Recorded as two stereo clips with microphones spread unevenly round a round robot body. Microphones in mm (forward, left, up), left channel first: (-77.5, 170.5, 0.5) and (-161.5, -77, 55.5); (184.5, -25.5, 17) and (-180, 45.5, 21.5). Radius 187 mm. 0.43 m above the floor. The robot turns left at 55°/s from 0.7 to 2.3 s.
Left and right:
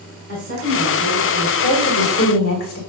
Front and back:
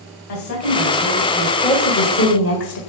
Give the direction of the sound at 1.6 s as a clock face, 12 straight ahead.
10 o'clock.